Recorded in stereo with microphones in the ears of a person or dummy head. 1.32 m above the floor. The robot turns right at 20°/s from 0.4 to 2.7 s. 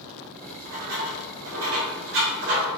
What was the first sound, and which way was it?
Writing, 60° right (ahead or behind).